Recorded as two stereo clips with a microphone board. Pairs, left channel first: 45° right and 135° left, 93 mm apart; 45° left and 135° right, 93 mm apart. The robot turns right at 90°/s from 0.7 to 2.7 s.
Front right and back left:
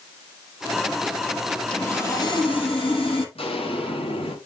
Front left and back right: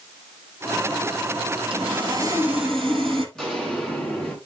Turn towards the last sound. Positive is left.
turn(degrees=-35)